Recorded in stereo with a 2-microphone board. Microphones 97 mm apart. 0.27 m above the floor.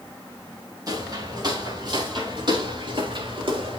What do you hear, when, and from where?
0.9 s footsteps: 40° right (ahead or behind), 6.5 m; by 3.8 s 60° right (ahead or behind), 6 m